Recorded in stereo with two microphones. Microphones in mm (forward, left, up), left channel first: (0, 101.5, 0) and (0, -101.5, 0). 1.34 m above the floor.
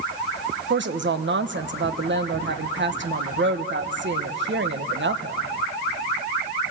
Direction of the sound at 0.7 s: 60° right (ahead or behind).